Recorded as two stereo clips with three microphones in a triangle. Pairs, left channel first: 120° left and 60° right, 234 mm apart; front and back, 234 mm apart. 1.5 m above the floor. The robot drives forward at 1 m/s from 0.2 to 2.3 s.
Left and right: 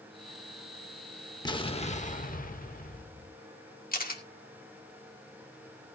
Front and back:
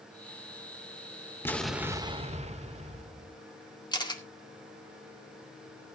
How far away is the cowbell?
I don't hear a cowbell.